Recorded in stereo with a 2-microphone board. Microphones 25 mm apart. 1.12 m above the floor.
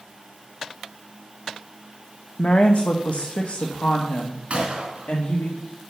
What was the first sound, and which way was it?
A woman speaking, 50° left (ahead or behind).